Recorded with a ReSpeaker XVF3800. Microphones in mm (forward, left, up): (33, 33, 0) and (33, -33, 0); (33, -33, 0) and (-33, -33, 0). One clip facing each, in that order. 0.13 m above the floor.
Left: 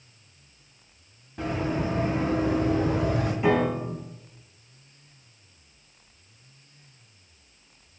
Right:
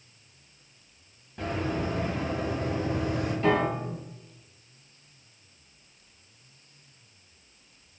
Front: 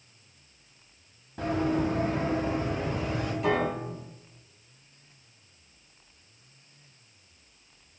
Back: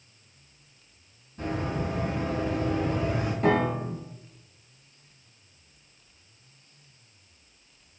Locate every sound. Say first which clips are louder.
1.4 s running footsteps: left 2 dB, front 4 dB; 5° left, 1.5 m; by 3.3 s 105° left, 1.2 m
3.4 s a piano: left 2 dB, back 4 dB; 155° left, 0.7 m